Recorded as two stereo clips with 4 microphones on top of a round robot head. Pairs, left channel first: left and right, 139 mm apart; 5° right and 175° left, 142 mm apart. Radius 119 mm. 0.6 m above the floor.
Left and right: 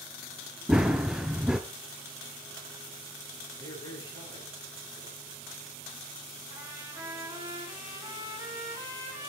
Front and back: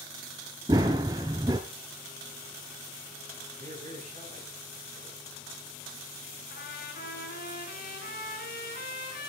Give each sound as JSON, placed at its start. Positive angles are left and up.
{"t": 0.7, "sound": "running footsteps", "azimuth_deg": -165, "distance_m": 0.6}
{"t": 3.6, "sound": "a man speaking", "azimuth_deg": 145, "distance_m": 8.0}
{"t": 6.5, "sound": "a trumpet", "azimuth_deg": -15, "distance_m": 3.0}